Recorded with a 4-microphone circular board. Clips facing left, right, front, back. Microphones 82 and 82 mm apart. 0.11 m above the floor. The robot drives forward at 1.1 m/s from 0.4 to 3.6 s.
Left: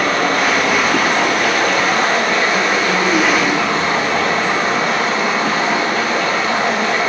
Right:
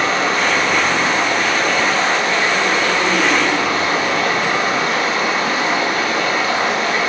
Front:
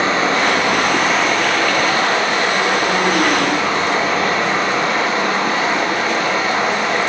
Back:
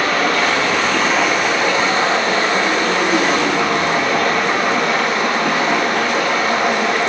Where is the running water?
60° left, 1.9 m; by 7.1 s 150° left, 3 m.